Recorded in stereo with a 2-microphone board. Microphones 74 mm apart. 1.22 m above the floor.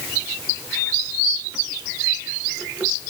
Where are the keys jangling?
No keys jangling in this recording.